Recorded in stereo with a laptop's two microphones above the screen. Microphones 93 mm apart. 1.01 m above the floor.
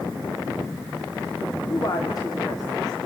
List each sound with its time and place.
1.6 s a woman speaking: 45° left (ahead or behind), 2.5 m